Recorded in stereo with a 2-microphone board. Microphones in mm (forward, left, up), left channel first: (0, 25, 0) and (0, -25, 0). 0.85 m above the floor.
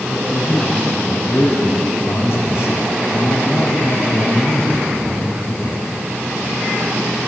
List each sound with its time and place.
0.1 s a man speaking: 70° left (ahead or behind), 6.5 m; by 5.9 s 45° left (ahead or behind), 4 m